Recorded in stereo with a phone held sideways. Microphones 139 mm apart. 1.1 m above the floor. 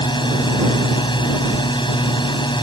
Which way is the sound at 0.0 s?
35° left (ahead or behind).